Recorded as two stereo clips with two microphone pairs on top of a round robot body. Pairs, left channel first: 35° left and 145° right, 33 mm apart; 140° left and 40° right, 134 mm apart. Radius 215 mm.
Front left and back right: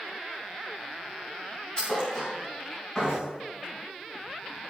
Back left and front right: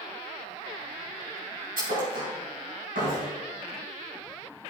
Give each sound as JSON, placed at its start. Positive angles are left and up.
{"t": 1.8, "sound": "a thud", "azimuth_deg": -35, "distance_m": 5.0}